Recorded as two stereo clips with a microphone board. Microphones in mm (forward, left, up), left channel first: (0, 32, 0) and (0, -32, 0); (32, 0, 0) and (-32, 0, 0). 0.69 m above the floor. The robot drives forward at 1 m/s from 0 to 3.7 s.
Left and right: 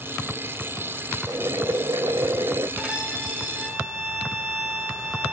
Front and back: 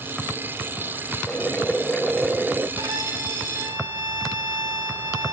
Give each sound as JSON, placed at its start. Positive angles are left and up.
{"t": 1.3, "sound": "boiling", "azimuth_deg": -65, "distance_m": 1.8}
{"t": 2.8, "sound": "a violin", "azimuth_deg": -165, "distance_m": 2.0}